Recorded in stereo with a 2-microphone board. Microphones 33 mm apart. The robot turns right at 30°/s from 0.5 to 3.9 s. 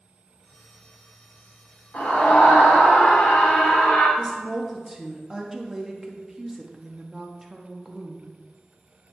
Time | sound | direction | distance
1.9 | a scream | 70° left | 1.6 m
4.2 | a woman speaking | 15° right (ahead or behind) | 0.9 m